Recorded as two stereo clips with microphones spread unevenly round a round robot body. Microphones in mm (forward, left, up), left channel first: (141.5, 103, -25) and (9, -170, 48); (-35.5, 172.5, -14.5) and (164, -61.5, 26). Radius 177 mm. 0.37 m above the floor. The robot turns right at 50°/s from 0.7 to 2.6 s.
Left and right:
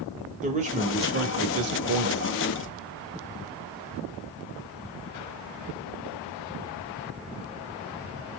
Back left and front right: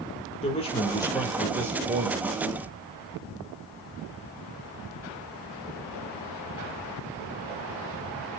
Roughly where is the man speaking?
Behind.